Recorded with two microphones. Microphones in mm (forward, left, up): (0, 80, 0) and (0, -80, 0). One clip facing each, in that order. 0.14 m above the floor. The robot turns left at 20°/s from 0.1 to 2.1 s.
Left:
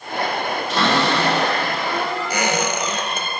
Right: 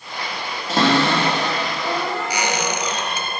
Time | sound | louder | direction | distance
0.7 | a cupboard door | right 3 dB | 40° right (ahead or behind) | 4 m
2.3 | a squeak | left 2 dB | 50° left (ahead or behind) | 1.3 m